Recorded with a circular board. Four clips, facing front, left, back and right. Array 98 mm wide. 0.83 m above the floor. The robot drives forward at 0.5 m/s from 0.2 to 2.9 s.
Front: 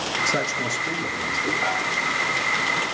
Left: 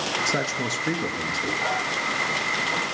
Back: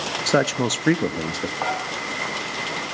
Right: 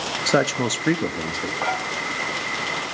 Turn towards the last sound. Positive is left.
turn(degrees=-155)